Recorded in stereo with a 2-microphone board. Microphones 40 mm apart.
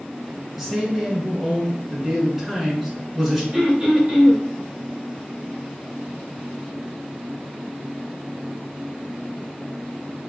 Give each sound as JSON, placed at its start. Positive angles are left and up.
{"t": 0.6, "sound": "a man speaking", "side_deg": -10, "distance_m": 1.2}
{"t": 3.5, "sound": "throat clearing", "side_deg": -30, "distance_m": 1.6}